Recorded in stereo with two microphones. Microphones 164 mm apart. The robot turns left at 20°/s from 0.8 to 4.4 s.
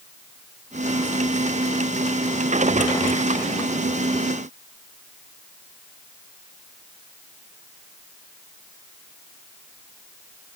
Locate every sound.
Only background noise.